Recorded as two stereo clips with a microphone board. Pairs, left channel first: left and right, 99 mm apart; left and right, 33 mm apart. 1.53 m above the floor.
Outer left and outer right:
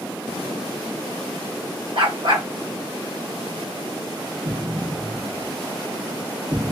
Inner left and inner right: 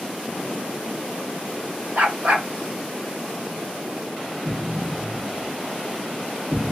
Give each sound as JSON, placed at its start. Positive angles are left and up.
{"t": 1.9, "sound": "a dog barking", "side_deg": -55, "distance_m": 1.6}
{"t": 4.5, "sound": "an explosion", "side_deg": -45, "distance_m": 1.3}